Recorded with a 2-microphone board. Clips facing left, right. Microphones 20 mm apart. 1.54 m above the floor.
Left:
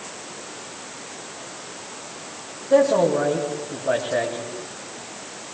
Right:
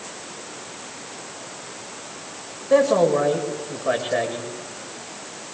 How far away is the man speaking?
About 6 m.